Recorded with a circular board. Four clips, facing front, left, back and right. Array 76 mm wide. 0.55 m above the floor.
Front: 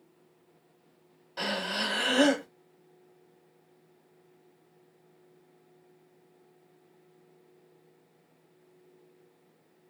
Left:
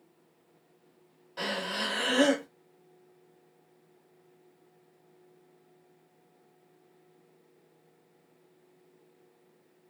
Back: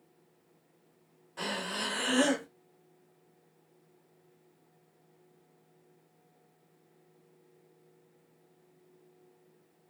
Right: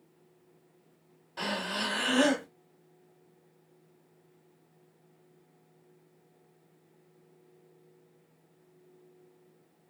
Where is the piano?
No piano in this recording.